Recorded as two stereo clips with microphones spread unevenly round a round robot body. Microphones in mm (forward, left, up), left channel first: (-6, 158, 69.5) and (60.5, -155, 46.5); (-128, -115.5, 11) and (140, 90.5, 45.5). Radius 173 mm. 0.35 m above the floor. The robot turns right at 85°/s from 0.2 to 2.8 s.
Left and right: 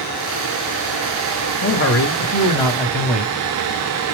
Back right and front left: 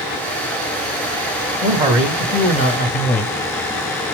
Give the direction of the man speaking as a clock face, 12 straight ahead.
9 o'clock.